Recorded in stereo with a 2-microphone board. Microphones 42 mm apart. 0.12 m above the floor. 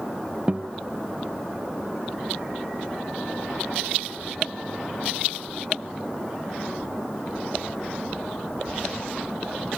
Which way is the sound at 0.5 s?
30° right (ahead or behind).